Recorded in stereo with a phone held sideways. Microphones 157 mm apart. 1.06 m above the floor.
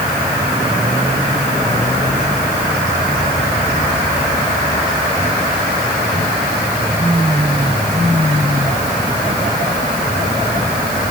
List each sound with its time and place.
Only background noise.